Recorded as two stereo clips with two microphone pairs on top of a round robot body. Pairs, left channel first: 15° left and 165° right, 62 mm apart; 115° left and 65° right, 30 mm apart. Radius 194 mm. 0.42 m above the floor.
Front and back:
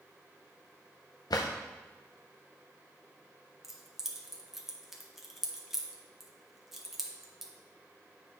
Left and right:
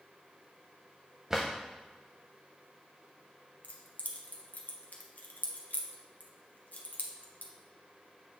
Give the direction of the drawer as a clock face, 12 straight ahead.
12 o'clock.